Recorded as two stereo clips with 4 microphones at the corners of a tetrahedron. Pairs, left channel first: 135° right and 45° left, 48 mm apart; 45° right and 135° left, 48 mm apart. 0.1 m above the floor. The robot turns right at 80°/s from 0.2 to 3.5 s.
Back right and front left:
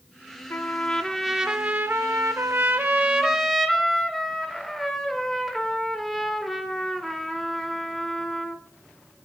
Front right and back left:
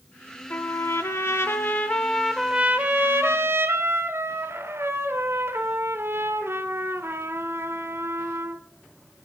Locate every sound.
0.5 s a trumpet: 100° right, 0.6 m; by 8.6 s 140° left, 0.6 m